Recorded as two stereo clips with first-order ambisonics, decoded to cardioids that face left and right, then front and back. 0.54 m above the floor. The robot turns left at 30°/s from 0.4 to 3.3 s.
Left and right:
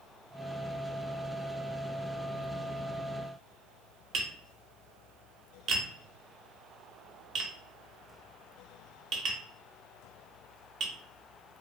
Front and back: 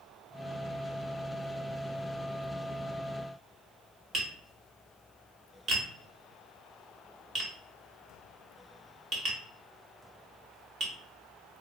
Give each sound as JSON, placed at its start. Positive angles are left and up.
{"t": 4.1, "sound": "tapping", "azimuth_deg": -135, "distance_m": 0.9}